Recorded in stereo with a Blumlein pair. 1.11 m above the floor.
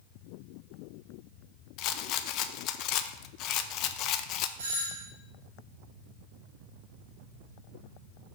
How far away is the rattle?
About 0.5 m.